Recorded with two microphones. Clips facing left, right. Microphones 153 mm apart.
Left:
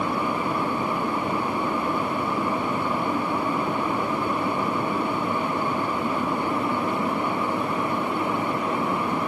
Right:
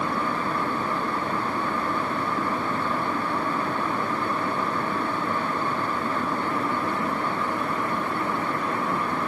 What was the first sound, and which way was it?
Only background noise.